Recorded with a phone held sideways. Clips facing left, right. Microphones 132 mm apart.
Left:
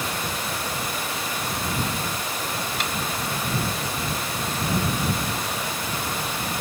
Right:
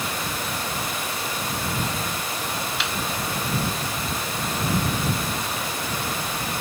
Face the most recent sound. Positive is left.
turn(degrees=45)  # may be behind; listen again after turning